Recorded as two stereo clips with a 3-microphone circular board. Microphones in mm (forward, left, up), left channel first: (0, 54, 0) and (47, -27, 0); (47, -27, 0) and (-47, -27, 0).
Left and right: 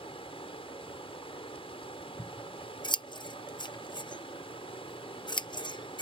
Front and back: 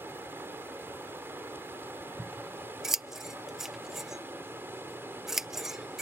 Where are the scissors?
95° left.